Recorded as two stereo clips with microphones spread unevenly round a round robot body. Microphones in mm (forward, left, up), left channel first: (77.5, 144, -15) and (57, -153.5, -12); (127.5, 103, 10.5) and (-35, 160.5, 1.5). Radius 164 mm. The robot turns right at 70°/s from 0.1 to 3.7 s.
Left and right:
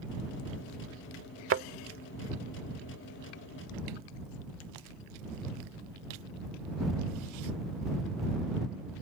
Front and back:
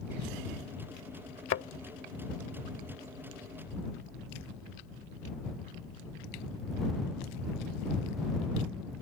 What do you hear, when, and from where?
1.5 s a thud: 45° right; by 1.6 s 35° right